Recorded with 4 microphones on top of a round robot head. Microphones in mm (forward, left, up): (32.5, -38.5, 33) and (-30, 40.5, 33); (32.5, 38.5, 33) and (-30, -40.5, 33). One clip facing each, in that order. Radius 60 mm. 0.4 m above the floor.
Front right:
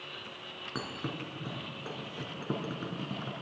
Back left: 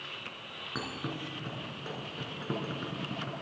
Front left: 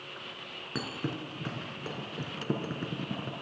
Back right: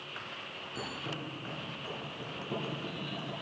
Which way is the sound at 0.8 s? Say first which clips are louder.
Back left 1 dB, front left 5 dB; 30° left.